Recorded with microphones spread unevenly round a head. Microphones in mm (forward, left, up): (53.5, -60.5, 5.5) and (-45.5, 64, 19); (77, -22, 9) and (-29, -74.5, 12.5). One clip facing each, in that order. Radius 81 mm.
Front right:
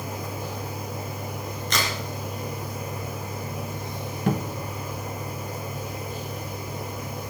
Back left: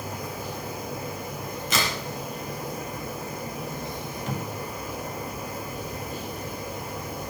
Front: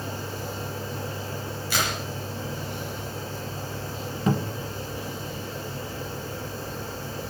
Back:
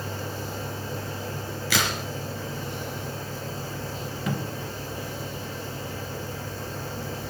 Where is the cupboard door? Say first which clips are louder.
Front right 8 dB, front 6 dB; 25° right, 1.3 m.